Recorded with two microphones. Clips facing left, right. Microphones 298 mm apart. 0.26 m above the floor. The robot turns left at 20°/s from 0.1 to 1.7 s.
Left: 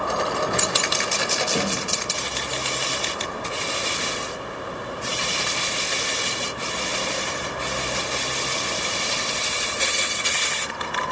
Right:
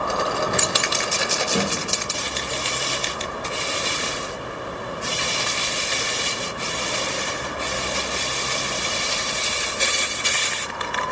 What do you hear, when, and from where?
1.6 s a snare drum: 20° right (ahead or behind), 3 m